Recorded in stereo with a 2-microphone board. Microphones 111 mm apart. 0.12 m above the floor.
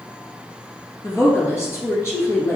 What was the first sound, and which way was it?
A woman speaking, 25° left (ahead or behind).